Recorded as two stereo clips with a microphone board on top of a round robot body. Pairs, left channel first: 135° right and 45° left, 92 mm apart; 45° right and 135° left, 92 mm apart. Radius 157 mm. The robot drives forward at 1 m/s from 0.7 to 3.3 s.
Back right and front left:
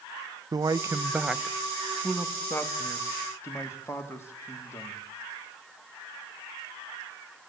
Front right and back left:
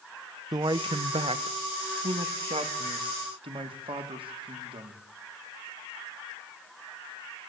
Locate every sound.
0.5 s a man speaking: 95° left, 1.0 m; by 5.0 s 160° left, 3 m